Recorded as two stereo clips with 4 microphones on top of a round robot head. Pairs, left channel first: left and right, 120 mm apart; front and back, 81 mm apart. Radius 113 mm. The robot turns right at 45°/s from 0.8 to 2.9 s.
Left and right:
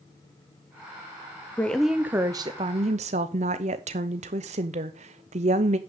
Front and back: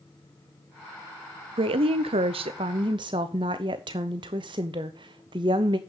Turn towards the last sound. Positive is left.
turn(degrees=-130)